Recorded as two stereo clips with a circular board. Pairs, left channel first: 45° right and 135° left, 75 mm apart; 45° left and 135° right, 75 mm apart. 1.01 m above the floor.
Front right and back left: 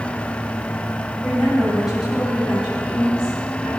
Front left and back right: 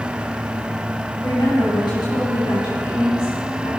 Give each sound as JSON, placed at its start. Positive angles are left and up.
{"t": 1.2, "sound": "a woman speaking", "azimuth_deg": 50, "distance_m": 6.0}